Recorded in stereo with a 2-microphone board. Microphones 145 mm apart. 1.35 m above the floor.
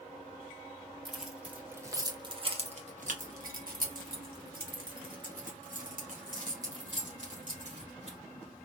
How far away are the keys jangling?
About 1.4 m.